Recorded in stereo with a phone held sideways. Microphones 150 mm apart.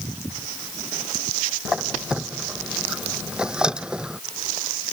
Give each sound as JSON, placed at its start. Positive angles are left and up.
{"t": 1.6, "sound": "a squeak", "side_deg": -5}